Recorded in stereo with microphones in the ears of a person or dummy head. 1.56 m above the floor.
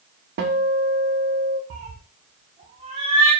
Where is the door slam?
No door slam in this recording.